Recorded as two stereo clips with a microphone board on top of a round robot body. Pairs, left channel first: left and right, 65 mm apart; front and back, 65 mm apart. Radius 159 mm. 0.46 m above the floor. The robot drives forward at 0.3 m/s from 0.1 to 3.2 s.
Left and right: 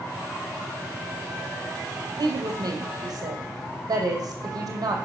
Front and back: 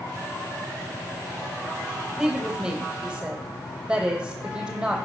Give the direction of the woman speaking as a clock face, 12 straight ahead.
3 o'clock.